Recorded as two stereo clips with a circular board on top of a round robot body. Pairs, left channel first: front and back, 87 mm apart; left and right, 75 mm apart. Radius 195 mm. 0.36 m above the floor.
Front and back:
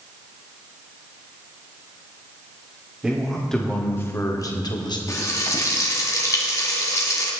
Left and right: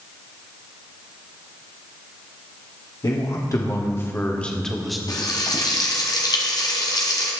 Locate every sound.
3.0 s a man speaking: 95° left, 2 m; by 5.0 s straight ahead, 2 m
5.1 s frying: 55° left, 2.0 m